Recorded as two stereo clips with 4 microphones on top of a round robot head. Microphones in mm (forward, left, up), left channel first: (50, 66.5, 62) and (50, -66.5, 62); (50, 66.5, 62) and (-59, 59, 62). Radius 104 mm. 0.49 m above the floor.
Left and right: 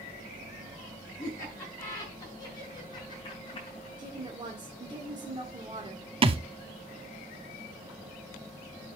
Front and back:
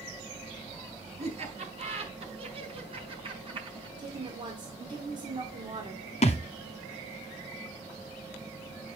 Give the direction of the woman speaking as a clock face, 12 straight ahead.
5 o'clock.